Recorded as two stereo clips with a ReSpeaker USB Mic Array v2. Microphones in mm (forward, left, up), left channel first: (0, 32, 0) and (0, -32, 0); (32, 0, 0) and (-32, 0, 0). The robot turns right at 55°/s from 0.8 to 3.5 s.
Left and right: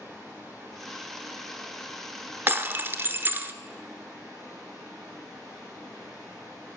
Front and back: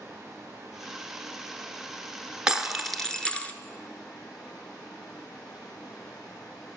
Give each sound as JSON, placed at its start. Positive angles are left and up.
{"t": 0.0, "sound": "running water", "azimuth_deg": -145, "distance_m": 5.5}
{"t": 2.5, "sound": "breaking glass", "azimuth_deg": -110, "distance_m": 0.7}